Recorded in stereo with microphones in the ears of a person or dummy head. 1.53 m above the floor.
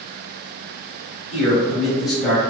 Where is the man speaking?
Centre (ahead or behind), 1.1 m.